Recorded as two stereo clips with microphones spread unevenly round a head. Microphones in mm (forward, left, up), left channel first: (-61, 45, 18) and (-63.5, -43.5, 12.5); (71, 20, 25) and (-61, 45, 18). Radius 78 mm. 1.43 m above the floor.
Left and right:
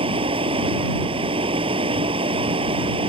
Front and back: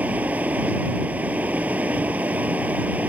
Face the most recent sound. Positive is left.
turn(degrees=-110)